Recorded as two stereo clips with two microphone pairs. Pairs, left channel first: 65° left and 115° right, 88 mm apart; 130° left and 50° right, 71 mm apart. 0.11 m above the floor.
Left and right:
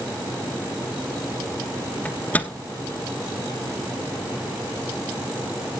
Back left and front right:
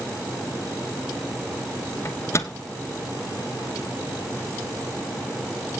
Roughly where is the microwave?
Behind left.